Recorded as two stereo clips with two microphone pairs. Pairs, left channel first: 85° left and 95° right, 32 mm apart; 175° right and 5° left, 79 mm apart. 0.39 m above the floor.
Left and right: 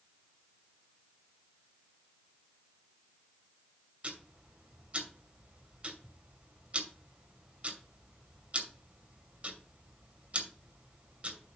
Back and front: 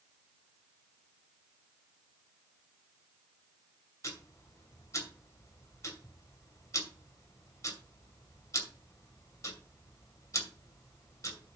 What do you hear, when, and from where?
4.0 s ticking: 140° right, 2.5 m